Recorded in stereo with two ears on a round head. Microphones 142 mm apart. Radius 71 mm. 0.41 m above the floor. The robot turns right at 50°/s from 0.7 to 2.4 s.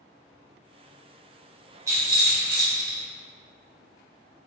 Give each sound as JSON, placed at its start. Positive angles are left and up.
{"t": 1.9, "sound": "a rattle", "side_deg": -20, "distance_m": 1.0}